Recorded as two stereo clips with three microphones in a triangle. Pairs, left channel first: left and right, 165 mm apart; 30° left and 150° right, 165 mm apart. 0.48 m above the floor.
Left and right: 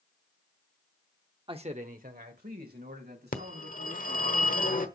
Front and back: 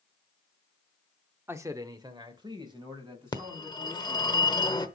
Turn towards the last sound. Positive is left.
turn(degrees=85)